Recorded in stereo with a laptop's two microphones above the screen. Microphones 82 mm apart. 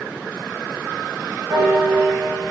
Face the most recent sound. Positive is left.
turn(degrees=-85)